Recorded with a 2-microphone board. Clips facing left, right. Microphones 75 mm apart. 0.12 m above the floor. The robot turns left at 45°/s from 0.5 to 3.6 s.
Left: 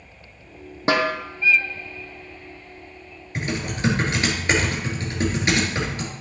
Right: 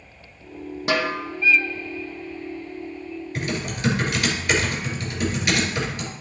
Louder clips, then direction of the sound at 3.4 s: Left 3 dB; 25° left (ahead or behind).